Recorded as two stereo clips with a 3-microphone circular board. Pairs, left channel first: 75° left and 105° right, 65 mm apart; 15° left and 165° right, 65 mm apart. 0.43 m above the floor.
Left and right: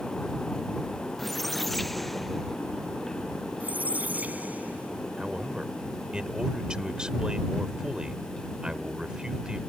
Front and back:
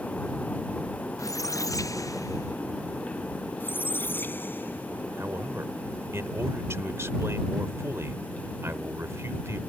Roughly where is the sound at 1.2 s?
Ahead.